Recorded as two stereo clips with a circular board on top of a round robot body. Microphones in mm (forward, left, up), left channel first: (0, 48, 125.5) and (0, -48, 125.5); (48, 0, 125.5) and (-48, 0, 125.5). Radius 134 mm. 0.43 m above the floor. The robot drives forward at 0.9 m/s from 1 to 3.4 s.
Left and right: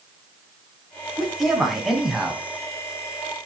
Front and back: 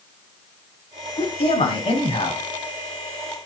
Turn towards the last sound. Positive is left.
turn(degrees=-5)